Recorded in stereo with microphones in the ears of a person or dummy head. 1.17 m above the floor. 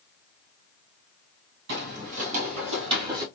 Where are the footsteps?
50° right (ahead or behind), 1.8 m; by 3.2 s 20° right (ahead or behind), 1.9 m.